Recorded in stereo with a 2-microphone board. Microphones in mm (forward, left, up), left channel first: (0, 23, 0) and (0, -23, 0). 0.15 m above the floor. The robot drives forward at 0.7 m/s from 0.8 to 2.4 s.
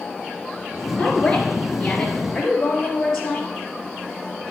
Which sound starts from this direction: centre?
A woman speaking, at 1.0 s.